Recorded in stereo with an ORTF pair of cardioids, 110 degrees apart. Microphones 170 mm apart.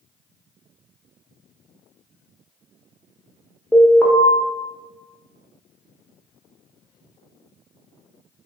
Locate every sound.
3.7 s an alarm: 15° left, 0.8 m